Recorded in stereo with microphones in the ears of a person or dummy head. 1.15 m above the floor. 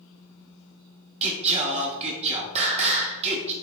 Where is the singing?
30° right (ahead or behind), 1.0 m.